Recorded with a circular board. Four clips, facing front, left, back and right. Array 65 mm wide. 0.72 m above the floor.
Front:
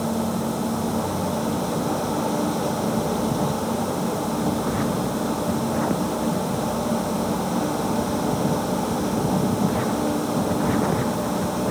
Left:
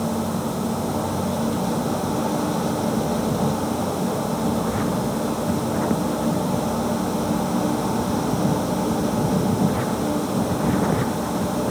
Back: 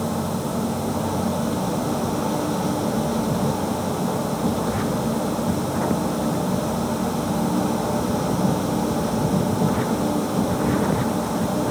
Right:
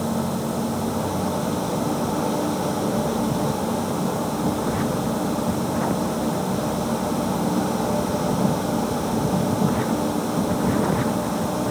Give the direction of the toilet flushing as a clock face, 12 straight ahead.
No toilet flushing in this recording.